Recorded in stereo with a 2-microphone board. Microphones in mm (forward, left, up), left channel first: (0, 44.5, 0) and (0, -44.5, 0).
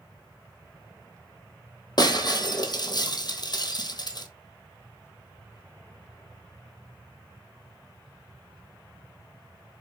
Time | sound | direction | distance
2.0 | breaking glass | 50° left (ahead or behind) | 0.8 m